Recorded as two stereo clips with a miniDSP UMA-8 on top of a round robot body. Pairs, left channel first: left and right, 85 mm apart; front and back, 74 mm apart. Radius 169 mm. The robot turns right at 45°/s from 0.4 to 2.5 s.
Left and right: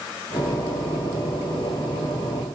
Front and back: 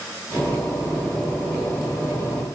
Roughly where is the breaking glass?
I don't hear breaking glass.